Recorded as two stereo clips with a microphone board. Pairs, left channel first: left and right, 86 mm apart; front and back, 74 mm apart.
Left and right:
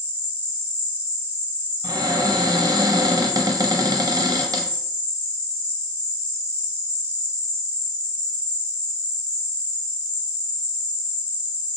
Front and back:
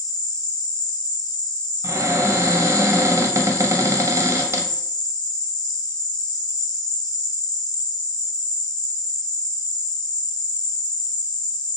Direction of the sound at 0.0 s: 15° right.